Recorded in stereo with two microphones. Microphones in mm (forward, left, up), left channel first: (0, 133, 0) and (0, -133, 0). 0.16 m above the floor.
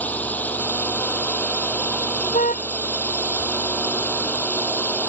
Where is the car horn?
30° left (ahead or behind).